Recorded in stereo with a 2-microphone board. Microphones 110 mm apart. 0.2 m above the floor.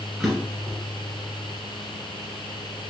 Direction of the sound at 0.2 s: 5° right (ahead or behind).